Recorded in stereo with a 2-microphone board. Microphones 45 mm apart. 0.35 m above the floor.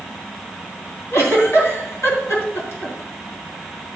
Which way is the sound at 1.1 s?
60° left (ahead or behind).